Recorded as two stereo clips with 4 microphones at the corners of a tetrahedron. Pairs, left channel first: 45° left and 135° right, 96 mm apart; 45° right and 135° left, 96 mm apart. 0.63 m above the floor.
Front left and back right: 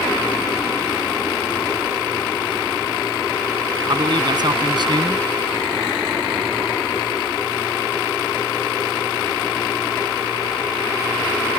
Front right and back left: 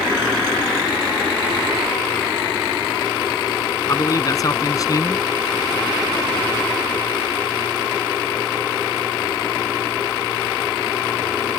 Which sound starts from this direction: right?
A man speaking, at 3.9 s.